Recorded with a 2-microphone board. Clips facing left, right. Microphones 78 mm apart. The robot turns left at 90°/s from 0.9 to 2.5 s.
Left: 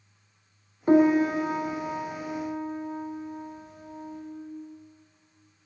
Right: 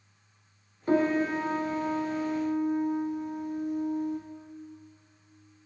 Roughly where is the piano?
Ahead left.